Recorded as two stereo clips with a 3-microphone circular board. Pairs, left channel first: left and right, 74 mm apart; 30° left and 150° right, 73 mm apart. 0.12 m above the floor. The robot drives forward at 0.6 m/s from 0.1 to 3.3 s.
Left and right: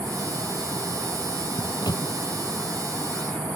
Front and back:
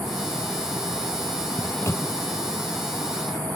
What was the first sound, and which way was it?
A microwave, 75° left.